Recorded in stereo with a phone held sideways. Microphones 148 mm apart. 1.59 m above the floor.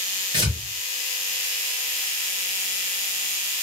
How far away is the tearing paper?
About 1.5 m.